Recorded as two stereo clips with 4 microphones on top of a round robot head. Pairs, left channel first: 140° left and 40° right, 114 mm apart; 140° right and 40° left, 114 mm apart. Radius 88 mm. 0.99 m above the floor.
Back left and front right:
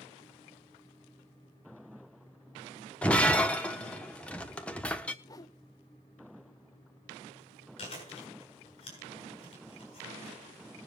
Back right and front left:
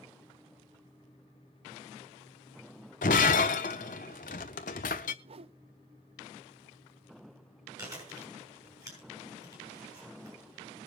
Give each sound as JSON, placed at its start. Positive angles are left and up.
{"t": 3.0, "sound": "breaking glass", "azimuth_deg": -140, "distance_m": 0.8}
{"t": 5.2, "sound": "a whoosh", "azimuth_deg": 80, "distance_m": 0.6}
{"t": 7.8, "sound": "chewing", "azimuth_deg": 100, "distance_m": 7.0}